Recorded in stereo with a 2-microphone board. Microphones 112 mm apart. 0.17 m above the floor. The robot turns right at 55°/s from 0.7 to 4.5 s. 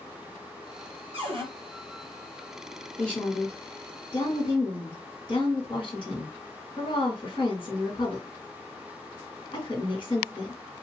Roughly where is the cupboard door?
Right.